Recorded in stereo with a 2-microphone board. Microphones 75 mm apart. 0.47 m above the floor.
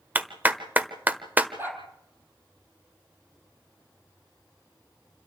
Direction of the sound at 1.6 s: 25° right (ahead or behind).